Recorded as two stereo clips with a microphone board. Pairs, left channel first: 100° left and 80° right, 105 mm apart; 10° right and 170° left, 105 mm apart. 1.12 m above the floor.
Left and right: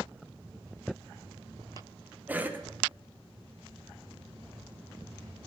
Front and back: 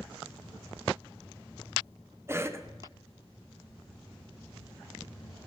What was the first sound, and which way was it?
A cough, 140° right.